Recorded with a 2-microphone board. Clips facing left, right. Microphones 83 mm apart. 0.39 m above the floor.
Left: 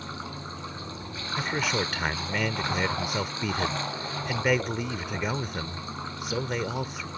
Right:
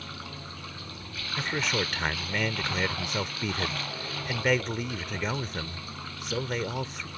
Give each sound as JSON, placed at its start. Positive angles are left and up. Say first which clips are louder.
{"t": 0.0, "sound": "running water", "louder": "left 4 dB", "side_deg": 25}
{"t": 1.4, "sound": "a man speaking", "louder": "left 1 dB", "side_deg": 5}